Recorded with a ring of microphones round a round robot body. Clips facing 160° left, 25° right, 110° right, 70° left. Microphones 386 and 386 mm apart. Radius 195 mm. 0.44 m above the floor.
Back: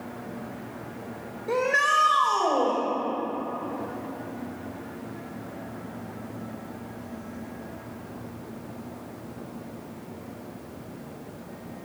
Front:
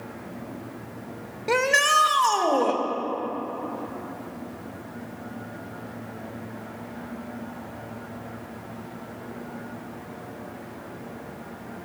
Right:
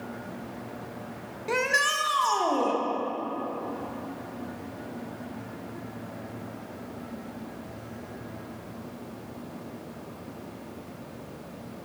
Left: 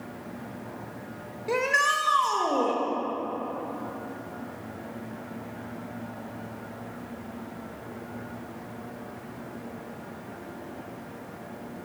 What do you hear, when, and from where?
1.5 s a shout: 35° right, 1.5 m